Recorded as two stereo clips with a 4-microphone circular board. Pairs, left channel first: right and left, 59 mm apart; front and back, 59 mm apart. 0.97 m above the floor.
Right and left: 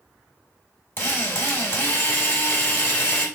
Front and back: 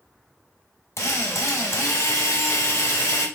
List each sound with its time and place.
1.0 s a drill: 35° right, 1.7 m